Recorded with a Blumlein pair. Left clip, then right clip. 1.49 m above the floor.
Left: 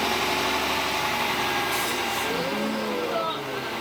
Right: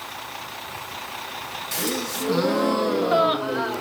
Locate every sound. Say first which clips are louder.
1.7 s a gasp: left 2 dB; 40° right, 0.8 m